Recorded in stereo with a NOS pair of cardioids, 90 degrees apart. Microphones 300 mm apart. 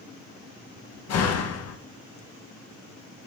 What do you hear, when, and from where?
1.1 s a door slam: 60° left, 1.8 m